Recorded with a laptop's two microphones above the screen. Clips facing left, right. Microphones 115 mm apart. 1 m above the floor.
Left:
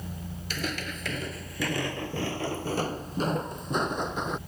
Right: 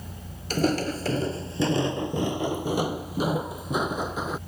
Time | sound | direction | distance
0.5 | footsteps | 40° right (ahead or behind) | ?